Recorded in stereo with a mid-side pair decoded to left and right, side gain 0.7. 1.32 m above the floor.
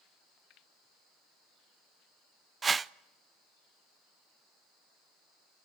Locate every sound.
2.6 s a whoosh: 20° right, 0.5 m